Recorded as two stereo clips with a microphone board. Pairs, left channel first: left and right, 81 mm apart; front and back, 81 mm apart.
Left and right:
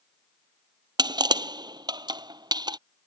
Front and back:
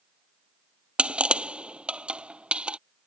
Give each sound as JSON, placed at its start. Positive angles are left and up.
{"t": 1.0, "sound": "crushing", "azimuth_deg": -105}